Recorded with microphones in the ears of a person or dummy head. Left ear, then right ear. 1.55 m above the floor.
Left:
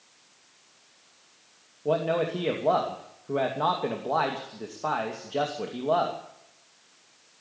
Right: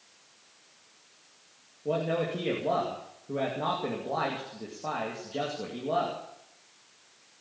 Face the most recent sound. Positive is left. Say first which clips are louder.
# left 4 dB
turn(degrees=50)  # may be behind; listen again after turning